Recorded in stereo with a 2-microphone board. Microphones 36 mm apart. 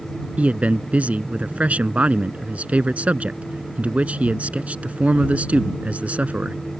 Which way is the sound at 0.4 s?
40° right (ahead or behind).